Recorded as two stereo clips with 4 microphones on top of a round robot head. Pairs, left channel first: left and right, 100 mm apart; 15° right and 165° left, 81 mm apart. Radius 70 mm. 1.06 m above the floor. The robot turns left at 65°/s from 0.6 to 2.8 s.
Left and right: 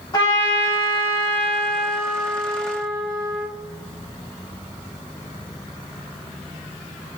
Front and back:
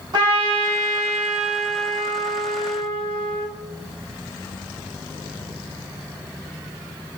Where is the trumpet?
140° left, 1.7 m; by 3.5 s straight ahead, 1.7 m.